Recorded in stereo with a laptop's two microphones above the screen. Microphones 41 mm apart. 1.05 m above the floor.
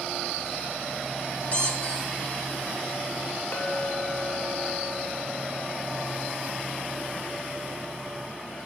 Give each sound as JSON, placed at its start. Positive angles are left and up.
{"t": 1.5, "sound": "a squeak", "side_deg": 35, "distance_m": 1.5}
{"t": 3.5, "sound": "a clink", "side_deg": 65, "distance_m": 1.8}